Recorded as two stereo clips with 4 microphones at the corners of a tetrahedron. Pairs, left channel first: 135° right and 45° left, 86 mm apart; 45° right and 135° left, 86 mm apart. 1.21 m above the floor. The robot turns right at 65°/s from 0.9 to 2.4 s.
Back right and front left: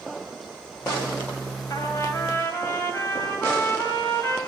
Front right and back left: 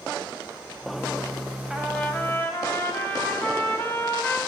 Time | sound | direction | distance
1.7 | a trumpet | 145° right | 1.3 m